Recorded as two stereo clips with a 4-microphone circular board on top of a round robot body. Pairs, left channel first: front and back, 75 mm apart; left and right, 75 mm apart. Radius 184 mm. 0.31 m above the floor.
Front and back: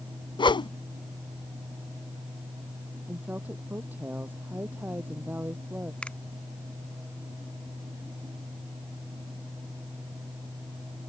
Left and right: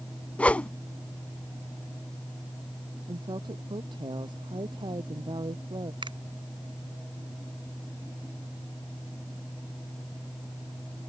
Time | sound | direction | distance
0.4 | a whoosh | 15° left | ?
3.1 | a woman speaking | 115° right | ?
6.0 | a finger snap | 75° right | ?